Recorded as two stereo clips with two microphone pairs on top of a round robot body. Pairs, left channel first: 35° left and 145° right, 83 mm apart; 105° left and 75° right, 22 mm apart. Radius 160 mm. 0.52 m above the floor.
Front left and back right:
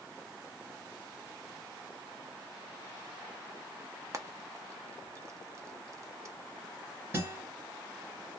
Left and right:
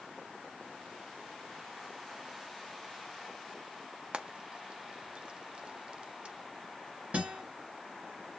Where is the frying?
100° right, 0.8 m.